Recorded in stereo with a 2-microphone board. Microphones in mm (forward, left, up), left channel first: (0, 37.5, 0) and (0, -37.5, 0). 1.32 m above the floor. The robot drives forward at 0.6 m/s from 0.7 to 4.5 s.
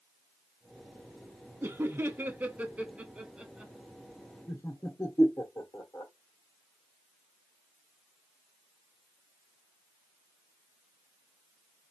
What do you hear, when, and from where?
1.6 s laughter: 30° right (ahead or behind), 0.5 m; by 3.7 s 10° right (ahead or behind), 1.3 m
4.5 s laughter: 35° left (ahead or behind), 1.0 m; by 6.1 s 30° left (ahead or behind), 1.0 m